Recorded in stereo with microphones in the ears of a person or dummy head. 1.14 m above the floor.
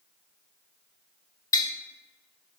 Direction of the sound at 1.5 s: 20° left (ahead or behind).